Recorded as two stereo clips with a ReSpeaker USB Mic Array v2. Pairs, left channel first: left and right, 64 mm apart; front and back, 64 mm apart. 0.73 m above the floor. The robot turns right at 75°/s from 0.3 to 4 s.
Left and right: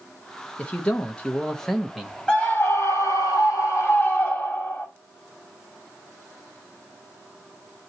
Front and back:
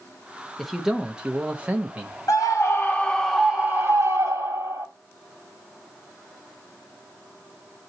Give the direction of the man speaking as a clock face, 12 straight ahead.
9 o'clock.